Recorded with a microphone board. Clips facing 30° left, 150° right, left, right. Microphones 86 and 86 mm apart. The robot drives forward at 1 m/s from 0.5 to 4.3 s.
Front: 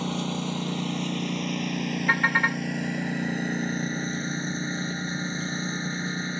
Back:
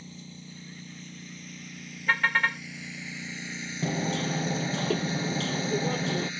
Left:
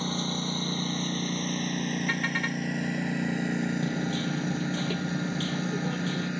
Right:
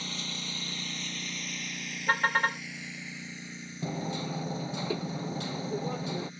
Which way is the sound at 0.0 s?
35° left.